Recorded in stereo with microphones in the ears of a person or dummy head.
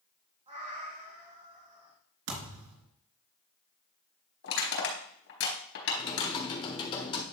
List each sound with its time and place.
0.5 s a cat meowing: 30° right (ahead or behind), 1.5 m
2.3 s a thud: 75° right (ahead or behind), 3.5 m
4.4 s crushing: 75° left (ahead or behind), 3.5 m
6.0 s typing on a keyboard: 35° left (ahead or behind), 1.5 m